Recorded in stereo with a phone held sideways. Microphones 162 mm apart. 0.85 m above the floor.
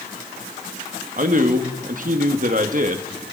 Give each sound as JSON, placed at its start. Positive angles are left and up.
{"t": 1.2, "sound": "a man speaking", "side_deg": -55, "distance_m": 1.4}